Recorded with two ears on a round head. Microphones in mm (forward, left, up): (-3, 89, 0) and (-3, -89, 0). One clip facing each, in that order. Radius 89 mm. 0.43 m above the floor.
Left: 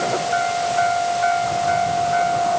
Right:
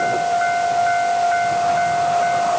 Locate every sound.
Only background noise.